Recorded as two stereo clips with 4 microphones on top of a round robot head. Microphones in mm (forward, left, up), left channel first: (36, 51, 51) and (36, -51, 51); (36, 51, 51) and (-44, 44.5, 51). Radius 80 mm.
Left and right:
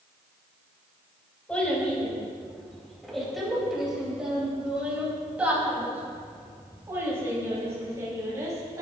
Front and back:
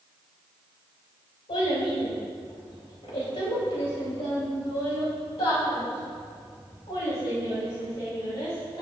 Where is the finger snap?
I don't hear a finger snap.